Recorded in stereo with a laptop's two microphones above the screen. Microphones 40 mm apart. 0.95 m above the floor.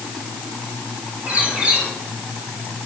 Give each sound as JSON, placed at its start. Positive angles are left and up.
{"t": 1.3, "sound": "a bird", "side_deg": -35, "distance_m": 6.0}